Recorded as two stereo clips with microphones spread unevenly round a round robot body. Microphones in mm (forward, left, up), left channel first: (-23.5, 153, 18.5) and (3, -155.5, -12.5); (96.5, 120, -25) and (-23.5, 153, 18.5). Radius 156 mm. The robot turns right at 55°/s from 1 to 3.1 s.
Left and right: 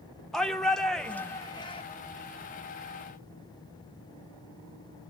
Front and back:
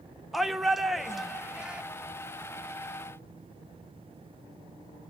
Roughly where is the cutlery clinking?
I don't hear cutlery clinking.